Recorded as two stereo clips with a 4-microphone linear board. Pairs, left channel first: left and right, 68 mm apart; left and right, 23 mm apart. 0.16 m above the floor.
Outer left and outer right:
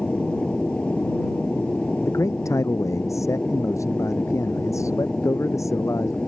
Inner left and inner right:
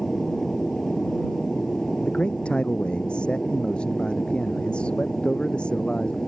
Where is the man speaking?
50° left (ahead or behind).